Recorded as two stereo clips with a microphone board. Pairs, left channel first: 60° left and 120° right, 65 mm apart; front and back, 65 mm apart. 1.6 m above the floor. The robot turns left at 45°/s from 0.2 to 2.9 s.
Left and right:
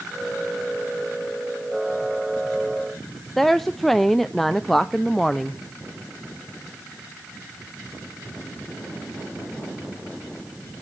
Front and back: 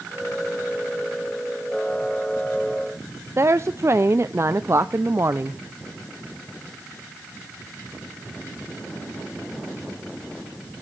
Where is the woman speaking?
145° left, 0.5 m.